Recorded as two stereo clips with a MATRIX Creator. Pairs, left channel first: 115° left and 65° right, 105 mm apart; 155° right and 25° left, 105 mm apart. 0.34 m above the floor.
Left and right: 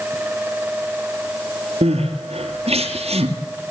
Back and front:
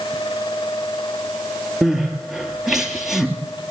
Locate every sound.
1.8 s crying: 65° right, 3 m